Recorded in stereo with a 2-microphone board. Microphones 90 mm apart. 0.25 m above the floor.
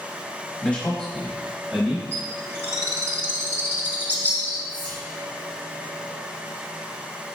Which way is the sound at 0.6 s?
15° left (ahead or behind).